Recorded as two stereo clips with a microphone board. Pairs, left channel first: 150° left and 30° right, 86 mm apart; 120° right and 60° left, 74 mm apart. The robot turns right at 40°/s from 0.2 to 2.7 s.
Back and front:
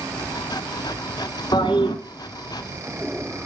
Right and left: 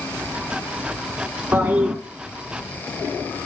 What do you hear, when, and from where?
1.5 s a toilet flushing: 125° left, 2 m; by 2.0 s 145° left, 2 m